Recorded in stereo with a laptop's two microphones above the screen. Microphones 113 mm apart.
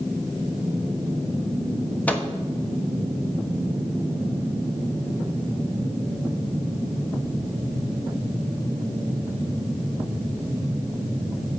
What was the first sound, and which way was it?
A microwave, 15° left (ahead or behind).